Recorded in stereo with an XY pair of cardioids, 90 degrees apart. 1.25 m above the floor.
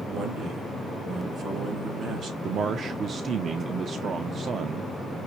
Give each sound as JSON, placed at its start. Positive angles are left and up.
{"t": 0.1, "sound": "a man speaking", "azimuth_deg": -70, "distance_m": 2.5}
{"t": 2.4, "sound": "a man speaking", "azimuth_deg": -60, "distance_m": 0.6}